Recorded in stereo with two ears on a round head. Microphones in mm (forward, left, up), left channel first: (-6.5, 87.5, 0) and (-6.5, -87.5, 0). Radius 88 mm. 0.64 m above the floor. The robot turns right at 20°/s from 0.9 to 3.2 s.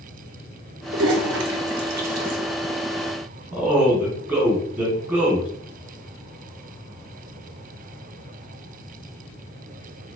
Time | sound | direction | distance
0.9 | a toilet flushing | 60° right (ahead or behind) | 0.8 m
3.5 | a man speaking | 5° right (ahead or behind) | 1.5 m